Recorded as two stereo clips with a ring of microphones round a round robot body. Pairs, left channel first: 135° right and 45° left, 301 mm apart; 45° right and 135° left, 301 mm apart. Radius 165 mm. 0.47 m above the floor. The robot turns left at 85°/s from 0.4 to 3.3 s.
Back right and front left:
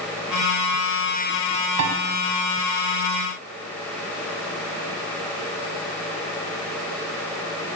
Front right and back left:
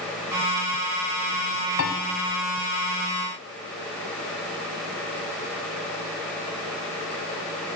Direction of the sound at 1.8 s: 5° left.